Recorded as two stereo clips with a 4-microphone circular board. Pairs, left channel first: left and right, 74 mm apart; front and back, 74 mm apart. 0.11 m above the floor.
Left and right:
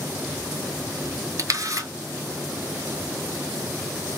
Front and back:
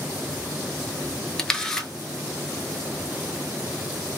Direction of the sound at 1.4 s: 80° right.